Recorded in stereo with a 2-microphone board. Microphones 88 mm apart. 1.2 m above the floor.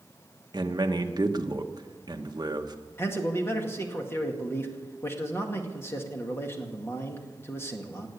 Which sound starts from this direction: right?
A man speaking, at 0.5 s.